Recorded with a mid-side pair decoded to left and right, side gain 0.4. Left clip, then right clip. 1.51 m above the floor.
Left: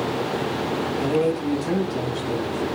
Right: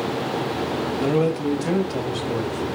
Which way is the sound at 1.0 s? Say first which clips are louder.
Right 1 dB; 35° right.